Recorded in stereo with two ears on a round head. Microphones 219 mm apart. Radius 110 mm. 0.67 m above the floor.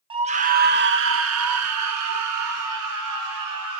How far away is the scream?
About 1.3 m.